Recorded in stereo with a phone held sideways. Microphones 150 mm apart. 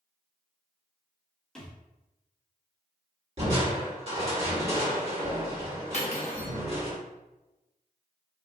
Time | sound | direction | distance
1.6 | a thud | 5° left (ahead or behind) | 1.1 m
3.4 | crushing | 40° right (ahead or behind) | 1.6 m
5.9 | cutlery clinking | 45° left (ahead or behind) | 0.8 m